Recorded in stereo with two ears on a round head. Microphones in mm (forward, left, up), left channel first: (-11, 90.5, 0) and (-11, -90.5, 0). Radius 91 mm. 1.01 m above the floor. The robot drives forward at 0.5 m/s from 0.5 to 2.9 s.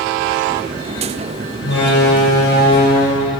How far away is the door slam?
About 3.5 m.